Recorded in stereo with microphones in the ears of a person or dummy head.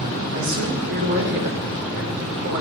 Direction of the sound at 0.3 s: 55° right (ahead or behind).